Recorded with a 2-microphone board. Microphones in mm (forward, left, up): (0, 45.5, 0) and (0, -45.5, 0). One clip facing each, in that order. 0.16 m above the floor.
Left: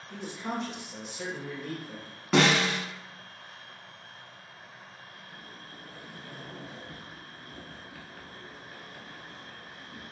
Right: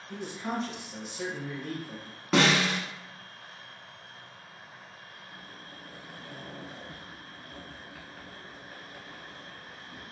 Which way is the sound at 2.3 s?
Centre (ahead or behind).